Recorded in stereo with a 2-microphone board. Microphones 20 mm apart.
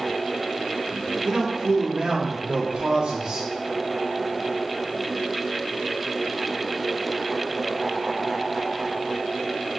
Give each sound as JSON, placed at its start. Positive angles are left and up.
{"t": 1.2, "sound": "a man speaking", "side_deg": -75, "distance_m": 3.0}